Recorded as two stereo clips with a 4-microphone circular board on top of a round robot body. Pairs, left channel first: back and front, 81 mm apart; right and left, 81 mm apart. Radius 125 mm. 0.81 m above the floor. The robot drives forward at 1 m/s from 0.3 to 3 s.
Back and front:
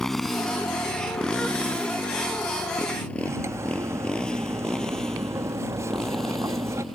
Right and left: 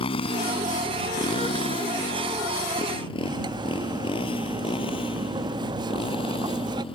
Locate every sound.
0.0 s a motorcycle: 95° right
3.2 s cutlery clinking: 55° left